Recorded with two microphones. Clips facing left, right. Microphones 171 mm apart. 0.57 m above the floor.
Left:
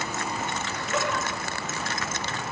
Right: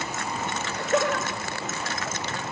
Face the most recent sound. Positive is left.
turn(degrees=-45)  # may be behind; listen again after turning